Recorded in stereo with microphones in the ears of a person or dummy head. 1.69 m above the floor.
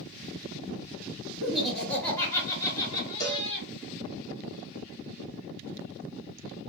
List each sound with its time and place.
1.4 s laughter: 10° right (ahead or behind), 1.4 m; by 3.7 s 40° left (ahead or behind), 1.7 m
3.2 s a cowbell: 20° left (ahead or behind), 1.3 m